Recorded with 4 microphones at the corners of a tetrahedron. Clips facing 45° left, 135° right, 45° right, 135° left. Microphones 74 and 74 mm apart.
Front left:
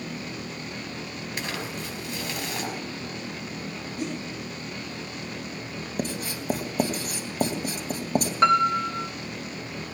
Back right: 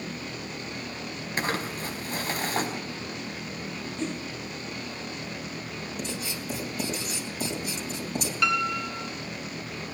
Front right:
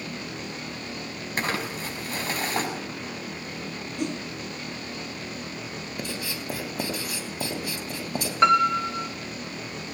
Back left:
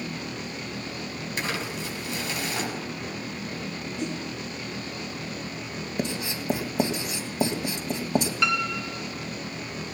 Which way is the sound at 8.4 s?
Straight ahead.